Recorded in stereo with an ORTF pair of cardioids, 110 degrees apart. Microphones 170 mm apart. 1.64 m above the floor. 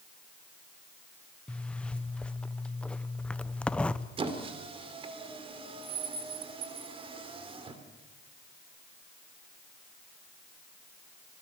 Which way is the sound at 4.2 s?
35° right.